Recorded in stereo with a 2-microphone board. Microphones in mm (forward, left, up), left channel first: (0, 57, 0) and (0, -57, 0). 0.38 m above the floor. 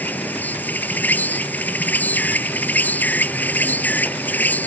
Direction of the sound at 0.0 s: 15° left (ahead or behind).